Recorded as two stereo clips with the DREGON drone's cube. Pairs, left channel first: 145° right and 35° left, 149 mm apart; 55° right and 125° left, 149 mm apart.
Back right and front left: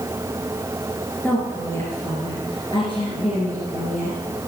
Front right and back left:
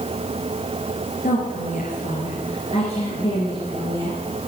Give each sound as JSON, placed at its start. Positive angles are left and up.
{"t": 1.2, "sound": "a woman speaking", "azimuth_deg": -70, "distance_m": 3.0}